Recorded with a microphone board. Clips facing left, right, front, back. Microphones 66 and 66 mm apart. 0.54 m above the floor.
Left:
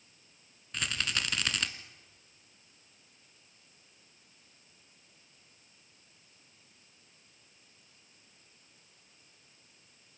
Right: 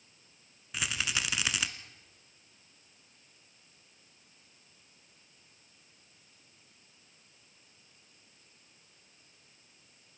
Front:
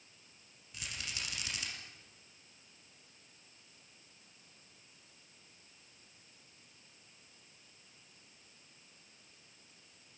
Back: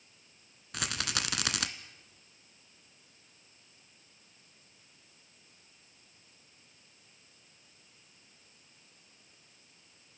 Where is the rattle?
175° right, 1.4 m.